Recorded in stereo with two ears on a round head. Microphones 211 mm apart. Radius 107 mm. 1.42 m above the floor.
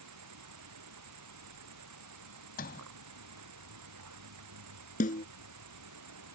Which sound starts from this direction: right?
An insect, at 0.0 s.